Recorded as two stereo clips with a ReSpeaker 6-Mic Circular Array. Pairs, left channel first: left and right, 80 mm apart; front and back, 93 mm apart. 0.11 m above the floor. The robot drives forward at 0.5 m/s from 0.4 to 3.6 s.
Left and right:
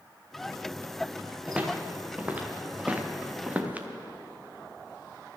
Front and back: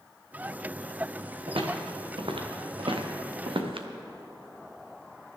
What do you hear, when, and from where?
1.5 s footsteps: 165° right, 2.5 m; by 3.9 s 160° right, 1.6 m